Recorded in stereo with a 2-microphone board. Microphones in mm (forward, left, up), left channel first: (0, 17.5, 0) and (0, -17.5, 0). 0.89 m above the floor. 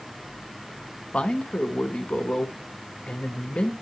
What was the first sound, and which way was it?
A man speaking, 35° left (ahead or behind).